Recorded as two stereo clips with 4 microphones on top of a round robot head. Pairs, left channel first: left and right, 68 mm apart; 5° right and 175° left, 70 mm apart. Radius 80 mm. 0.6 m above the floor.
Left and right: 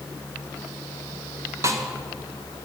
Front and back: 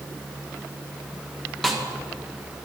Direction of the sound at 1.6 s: 90° right.